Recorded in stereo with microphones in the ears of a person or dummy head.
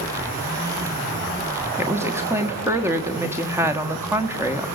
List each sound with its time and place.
1.8 s a woman speaking: 15° right (ahead or behind), 1.4 m